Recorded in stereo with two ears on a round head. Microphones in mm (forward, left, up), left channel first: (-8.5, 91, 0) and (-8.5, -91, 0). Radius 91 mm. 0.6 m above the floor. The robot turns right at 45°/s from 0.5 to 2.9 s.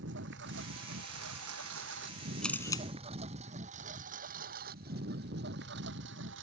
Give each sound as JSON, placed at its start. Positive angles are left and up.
{"t": 0.0, "sound": "a lawn mower", "side_deg": -65}
{"t": 2.4, "sound": "a camera shutter", "side_deg": 5}